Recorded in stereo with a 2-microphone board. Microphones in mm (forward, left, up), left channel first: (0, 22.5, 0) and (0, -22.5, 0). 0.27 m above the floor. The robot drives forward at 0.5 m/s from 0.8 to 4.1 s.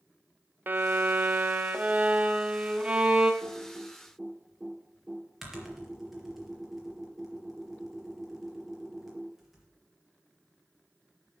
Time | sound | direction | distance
0.7 | a violin | 45° right (ahead or behind) | 0.7 m
3.4 | typing on a keyboard | 5° right (ahead or behind) | 3.5 m